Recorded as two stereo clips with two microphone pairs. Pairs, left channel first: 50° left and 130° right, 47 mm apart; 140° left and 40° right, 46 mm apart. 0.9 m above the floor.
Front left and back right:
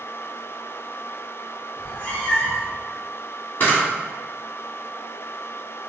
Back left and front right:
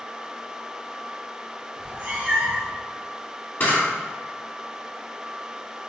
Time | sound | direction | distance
1.8 | a cat meowing | straight ahead | 1.3 m
3.6 | a camera shutter | 95° left | 1.9 m